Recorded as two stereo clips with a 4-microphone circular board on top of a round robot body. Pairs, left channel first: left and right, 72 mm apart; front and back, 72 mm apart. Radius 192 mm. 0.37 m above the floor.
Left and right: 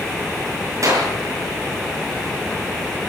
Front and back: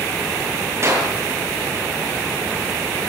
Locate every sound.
0.8 s a clap: 130° right, 9 m